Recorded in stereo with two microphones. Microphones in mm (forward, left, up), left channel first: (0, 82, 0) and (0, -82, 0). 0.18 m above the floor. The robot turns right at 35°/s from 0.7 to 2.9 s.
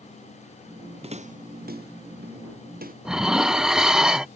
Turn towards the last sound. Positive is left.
turn(degrees=-5)  # may be behind; listen again after turning